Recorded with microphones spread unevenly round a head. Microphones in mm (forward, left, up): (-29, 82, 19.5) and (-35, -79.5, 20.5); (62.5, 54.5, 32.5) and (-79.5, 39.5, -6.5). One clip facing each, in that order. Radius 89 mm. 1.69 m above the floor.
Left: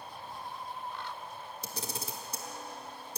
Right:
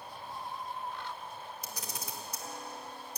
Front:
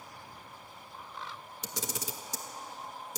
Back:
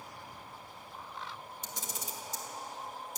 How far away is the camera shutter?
About 1.5 m.